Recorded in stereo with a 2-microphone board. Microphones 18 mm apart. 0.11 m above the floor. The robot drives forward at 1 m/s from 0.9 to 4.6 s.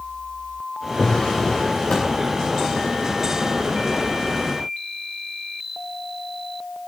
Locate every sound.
1.0 s a drawer: 70° left (ahead or behind), 5.5 m; by 2.2 s 80° left, 5.5 m